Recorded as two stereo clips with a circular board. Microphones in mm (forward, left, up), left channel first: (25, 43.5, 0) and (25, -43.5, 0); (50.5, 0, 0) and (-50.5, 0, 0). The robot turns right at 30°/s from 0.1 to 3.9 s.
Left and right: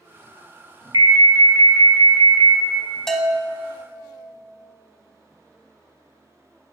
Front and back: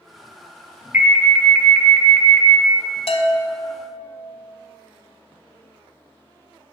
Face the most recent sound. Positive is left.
turn(degrees=30)